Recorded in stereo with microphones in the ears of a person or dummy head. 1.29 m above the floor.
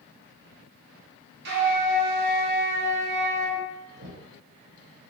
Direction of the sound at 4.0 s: 60° right (ahead or behind).